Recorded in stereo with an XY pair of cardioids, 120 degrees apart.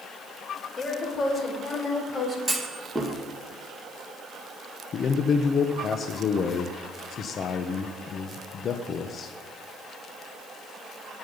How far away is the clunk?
About 2 m.